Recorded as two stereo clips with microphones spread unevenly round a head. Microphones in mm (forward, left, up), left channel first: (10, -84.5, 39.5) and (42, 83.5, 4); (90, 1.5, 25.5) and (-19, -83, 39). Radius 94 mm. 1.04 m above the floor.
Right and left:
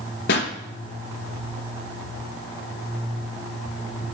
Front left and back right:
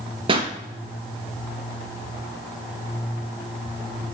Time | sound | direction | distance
0.3 | a pop | 95° right | 2.5 m